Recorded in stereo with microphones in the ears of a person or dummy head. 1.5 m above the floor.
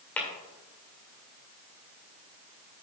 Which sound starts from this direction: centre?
Tapping, at 0.2 s.